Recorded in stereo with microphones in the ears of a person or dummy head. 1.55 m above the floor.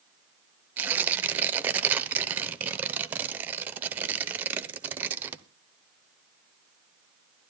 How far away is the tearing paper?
About 0.9 m.